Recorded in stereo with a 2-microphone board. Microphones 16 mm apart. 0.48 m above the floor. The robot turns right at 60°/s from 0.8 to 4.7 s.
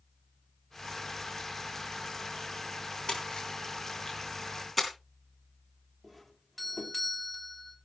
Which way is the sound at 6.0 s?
5° left (ahead or behind).